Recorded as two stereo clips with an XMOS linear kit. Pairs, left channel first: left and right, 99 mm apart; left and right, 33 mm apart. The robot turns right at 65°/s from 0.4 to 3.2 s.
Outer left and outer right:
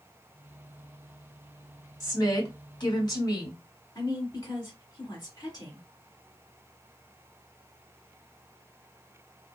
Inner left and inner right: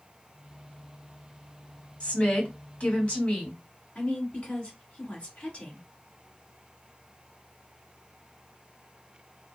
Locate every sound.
2.0 s a woman speaking: 50° left, 1.3 m; by 3.6 s 125° left, 1.3 m
4.0 s a woman speaking: 35° left (ahead or behind), 1.7 m